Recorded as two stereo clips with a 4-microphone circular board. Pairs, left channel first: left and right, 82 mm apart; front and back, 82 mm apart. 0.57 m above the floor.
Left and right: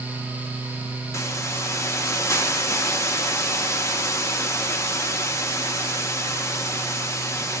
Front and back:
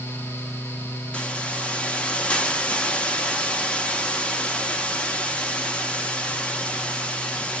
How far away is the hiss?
About 0.6 m.